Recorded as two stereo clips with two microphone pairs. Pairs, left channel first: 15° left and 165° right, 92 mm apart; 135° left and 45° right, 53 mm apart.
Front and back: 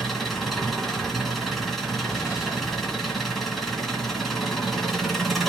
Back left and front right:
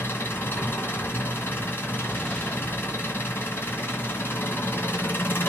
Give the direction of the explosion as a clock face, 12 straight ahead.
10 o'clock.